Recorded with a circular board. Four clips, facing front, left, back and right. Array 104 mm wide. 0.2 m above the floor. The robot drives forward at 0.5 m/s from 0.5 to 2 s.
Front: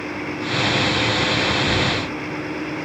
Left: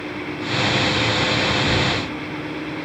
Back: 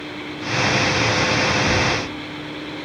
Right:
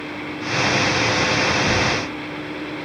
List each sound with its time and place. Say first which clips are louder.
1.6 s knocking: right 1 dB, back 1 dB; 125° right, 1.9 m; by 2.1 s 130° right, 2 m